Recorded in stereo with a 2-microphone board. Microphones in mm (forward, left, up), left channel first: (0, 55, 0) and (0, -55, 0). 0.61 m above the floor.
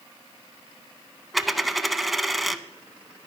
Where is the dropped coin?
Centre (ahead or behind), 0.6 m.